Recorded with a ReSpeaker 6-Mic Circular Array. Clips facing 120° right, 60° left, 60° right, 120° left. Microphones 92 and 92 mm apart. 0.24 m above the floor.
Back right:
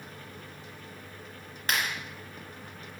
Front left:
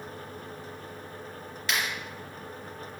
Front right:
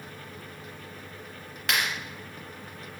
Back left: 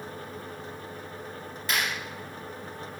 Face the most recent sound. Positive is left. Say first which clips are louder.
# even, front right 1 dB
turn(degrees=-75)